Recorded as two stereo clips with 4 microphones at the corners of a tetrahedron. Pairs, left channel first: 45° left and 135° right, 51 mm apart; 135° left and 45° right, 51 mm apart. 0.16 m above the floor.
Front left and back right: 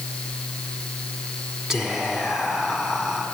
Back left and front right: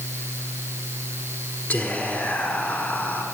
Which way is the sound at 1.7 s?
150° left.